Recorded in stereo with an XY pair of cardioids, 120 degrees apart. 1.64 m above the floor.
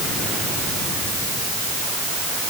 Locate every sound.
Only background noise.